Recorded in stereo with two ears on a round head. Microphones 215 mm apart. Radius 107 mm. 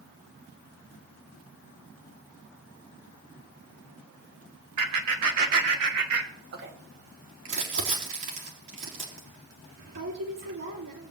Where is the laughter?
80° right, 2.5 m; by 6.7 s 65° right (ahead or behind), 3 m.